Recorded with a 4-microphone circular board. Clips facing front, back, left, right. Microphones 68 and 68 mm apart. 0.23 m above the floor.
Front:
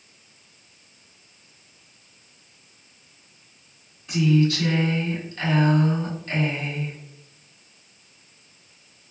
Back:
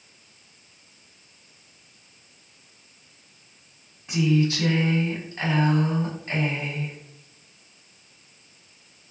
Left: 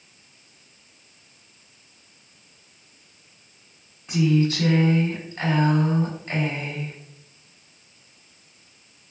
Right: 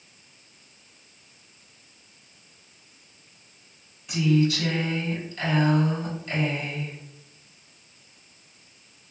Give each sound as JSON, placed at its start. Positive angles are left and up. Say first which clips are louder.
{"t": 4.1, "sound": "a woman speaking", "louder": "front 2 dB, left 1 dB", "azimuth_deg": 125, "distance_m": 1.4}